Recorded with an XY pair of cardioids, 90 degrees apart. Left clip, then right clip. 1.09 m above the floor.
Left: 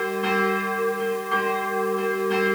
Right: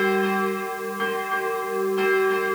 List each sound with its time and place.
Only background noise.